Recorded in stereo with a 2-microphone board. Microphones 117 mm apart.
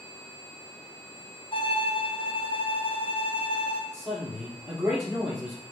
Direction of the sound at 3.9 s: 15° right (ahead or behind).